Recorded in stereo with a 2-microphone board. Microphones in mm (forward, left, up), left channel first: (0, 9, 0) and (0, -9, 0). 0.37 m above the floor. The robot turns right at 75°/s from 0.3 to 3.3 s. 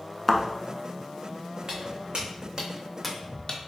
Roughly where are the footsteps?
Right.